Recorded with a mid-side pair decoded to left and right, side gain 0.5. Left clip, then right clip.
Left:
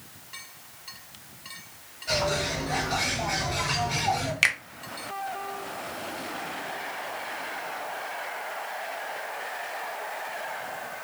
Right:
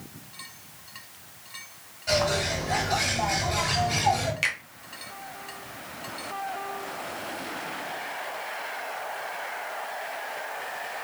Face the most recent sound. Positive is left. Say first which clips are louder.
# left 6 dB
turn(degrees=45)